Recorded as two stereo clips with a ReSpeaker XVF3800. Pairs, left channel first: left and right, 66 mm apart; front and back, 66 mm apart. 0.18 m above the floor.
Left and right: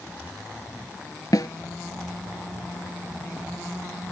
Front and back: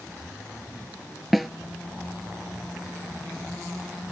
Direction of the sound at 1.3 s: 90° left.